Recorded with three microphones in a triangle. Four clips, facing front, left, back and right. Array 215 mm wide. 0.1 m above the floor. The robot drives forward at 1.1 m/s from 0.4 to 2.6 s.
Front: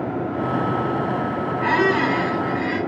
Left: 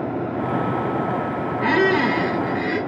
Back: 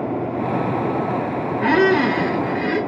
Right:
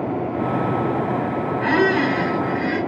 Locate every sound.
1.6 s a squeak: 165° left, 2 m; by 2.8 s 170° left, 3 m